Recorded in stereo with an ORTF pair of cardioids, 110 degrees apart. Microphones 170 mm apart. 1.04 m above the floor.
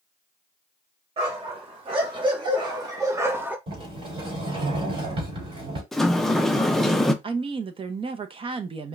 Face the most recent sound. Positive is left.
turn(degrees=-35)